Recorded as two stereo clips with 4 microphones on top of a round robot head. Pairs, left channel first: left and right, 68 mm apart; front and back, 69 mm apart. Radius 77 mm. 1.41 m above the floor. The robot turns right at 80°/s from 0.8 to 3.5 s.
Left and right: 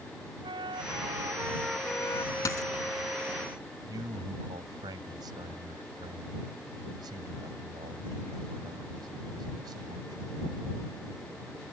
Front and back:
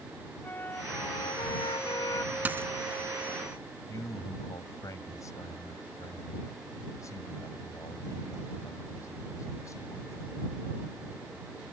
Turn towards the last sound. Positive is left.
turn(degrees=-55)